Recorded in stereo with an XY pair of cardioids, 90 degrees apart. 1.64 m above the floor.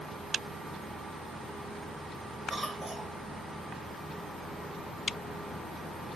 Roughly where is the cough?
Ahead.